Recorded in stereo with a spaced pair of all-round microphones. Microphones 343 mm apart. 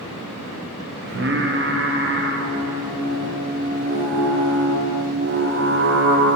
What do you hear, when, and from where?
1.0 s singing: 35° right (ahead or behind), 0.5 m